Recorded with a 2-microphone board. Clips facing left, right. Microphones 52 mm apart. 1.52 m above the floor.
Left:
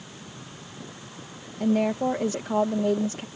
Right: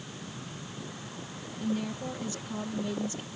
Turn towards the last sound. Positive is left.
turn(degrees=80)